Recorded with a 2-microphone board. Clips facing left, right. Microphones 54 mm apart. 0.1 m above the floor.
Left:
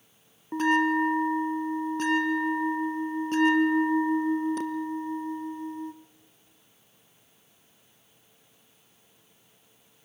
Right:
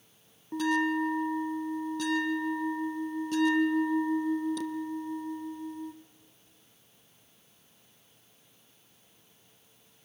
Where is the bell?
40° left (ahead or behind), 1.1 m.